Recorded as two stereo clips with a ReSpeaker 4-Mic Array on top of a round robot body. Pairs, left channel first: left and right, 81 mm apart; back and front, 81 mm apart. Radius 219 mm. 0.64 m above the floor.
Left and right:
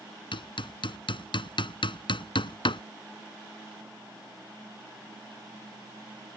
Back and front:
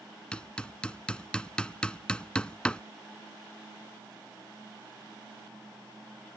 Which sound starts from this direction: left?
Hammering, at 0.3 s.